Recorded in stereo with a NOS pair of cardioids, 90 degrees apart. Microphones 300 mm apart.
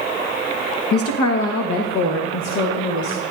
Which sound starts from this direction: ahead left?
A woman speaking, at 0.9 s.